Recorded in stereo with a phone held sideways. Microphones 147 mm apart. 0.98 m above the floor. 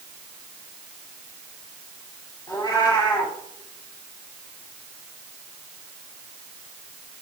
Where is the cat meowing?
25° left (ahead or behind), 2.5 m.